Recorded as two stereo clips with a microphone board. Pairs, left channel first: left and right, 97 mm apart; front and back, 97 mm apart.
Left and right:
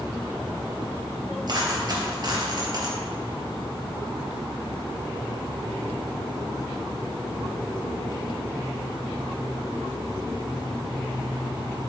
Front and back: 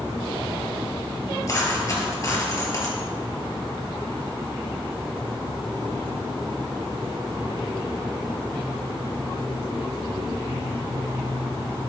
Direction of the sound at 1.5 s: 50° right.